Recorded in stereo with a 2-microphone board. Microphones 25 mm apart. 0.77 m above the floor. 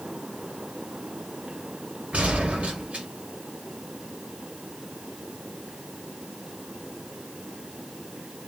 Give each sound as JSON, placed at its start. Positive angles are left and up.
{"t": 2.1, "sound": "a gunshot", "side_deg": -65, "distance_m": 1.6}